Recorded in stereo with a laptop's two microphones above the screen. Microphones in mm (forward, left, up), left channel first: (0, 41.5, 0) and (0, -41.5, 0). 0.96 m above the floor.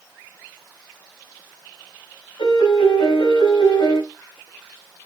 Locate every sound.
2.4 s a piano: 75° left (ahead or behind), 6.5 m